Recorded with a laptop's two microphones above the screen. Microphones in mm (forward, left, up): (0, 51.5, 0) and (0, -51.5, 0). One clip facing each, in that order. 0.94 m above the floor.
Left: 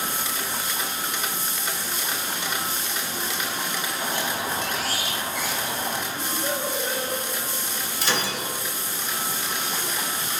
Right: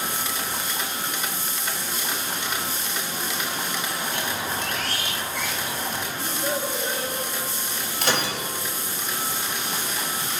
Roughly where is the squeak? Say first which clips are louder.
Left 1 dB; centre.